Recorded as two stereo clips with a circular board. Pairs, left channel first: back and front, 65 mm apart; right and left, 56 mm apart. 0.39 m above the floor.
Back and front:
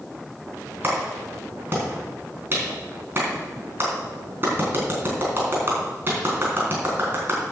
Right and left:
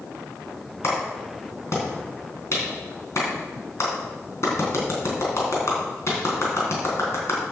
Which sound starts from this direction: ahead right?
A clap, at 0.8 s.